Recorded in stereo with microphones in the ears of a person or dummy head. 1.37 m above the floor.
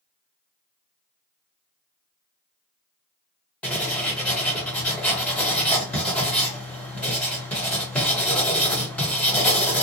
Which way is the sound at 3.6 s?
10° left (ahead or behind).